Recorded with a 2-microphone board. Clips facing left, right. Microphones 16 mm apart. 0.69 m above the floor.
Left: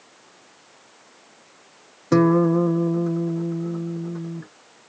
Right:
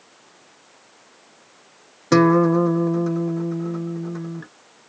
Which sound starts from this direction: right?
A guitar, at 2.1 s.